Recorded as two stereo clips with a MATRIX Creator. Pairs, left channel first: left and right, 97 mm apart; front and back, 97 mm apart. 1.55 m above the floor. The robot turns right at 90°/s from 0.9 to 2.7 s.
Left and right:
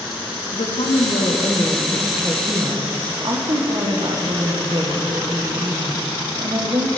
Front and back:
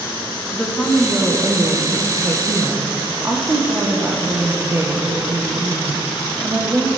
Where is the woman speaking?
80° left, 1.3 m; by 7.0 s 120° right, 1.3 m.